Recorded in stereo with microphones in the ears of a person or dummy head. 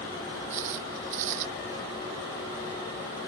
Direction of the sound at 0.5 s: 50° right (ahead or behind).